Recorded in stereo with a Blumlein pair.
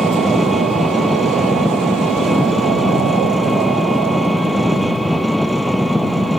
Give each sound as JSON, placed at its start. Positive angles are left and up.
{"t": 0.0, "sound": "an engine running", "azimuth_deg": 5}